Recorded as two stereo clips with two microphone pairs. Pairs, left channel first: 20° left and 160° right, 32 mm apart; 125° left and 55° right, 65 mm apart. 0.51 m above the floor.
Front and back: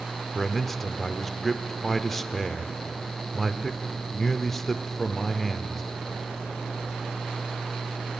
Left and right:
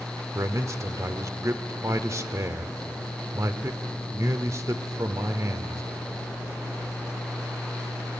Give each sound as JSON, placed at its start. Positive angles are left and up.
{"t": 0.3, "sound": "a man speaking", "azimuth_deg": -60, "distance_m": 1.1}